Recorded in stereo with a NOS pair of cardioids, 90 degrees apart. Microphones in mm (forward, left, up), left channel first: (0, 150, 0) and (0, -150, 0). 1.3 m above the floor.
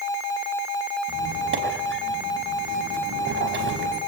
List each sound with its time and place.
1.1 s a squeak: 40° right, 5.5 m